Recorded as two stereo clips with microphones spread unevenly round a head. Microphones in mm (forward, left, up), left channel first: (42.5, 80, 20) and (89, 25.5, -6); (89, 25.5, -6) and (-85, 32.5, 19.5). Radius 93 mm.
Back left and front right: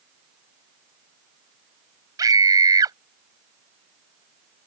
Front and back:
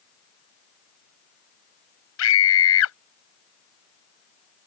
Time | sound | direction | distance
2.2 | a scream | 15° right | ?